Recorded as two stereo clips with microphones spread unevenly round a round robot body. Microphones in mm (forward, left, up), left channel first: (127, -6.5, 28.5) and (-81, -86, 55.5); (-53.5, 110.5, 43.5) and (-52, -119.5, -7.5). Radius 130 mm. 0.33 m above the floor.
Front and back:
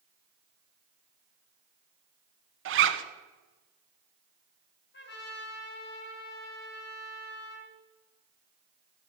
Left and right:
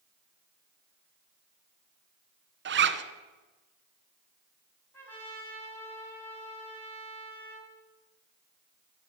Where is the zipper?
130° right, 1.0 m.